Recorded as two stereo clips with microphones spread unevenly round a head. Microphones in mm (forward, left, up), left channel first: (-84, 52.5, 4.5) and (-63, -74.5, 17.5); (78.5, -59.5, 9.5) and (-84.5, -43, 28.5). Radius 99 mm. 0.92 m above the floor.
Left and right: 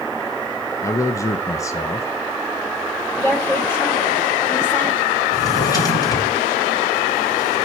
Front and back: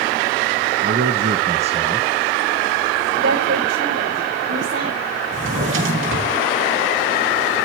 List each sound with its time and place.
0.8 s a man speaking: 160° left, 0.9 m; by 2.1 s 100° left, 0.6 m
3.2 s a woman speaking: 170° left, 3 m
5.3 s a drawer: 160° left, 4 m